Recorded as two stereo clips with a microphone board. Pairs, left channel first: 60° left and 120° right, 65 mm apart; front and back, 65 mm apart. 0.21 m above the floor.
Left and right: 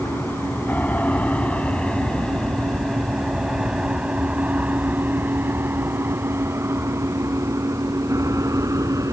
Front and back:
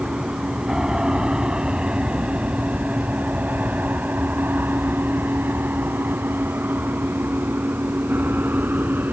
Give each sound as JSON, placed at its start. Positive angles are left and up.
{"t": 0.0, "sound": "an aircraft", "azimuth_deg": 100}